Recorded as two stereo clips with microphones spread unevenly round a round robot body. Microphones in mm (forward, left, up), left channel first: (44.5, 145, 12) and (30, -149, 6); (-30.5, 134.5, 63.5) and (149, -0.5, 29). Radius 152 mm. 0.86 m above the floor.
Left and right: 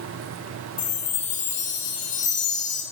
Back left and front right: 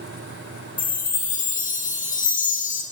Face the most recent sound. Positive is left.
turn(degrees=120)